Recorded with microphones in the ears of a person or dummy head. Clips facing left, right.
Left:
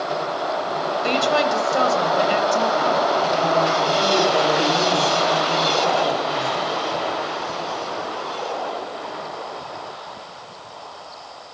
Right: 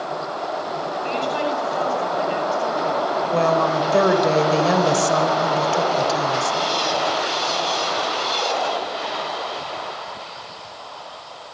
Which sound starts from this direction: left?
A woman speaking, at 1.0 s.